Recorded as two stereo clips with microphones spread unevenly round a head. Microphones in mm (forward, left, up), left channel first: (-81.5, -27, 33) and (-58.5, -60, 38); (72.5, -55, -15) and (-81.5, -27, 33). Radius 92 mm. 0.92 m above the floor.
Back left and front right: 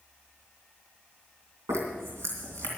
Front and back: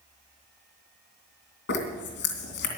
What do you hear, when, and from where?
1.7 s a zipper: 25° right, 2.5 m